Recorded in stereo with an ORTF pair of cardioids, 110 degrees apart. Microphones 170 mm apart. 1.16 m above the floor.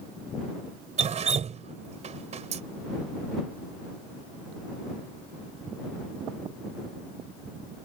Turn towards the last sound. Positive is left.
turn(degrees=-40)